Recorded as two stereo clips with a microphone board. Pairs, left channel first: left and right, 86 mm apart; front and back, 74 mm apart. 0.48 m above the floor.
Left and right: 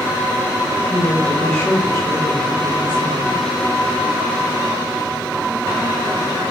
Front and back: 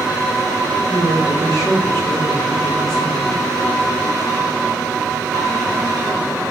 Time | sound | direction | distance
0.9 | a woman speaking | 20° left | 1.7 m